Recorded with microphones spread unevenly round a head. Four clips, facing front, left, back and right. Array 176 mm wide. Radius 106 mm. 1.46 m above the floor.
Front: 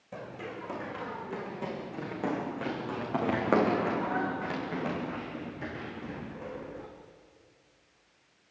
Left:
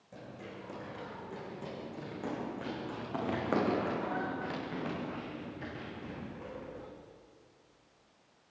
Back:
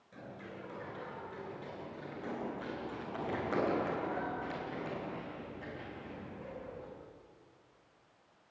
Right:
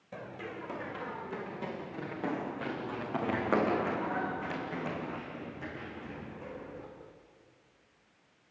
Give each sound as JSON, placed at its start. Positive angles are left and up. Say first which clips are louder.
{"t": 0.1, "sound": "running footsteps", "louder": "right 5 dB, front 7 dB", "azimuth_deg": -30, "distance_m": 5.5}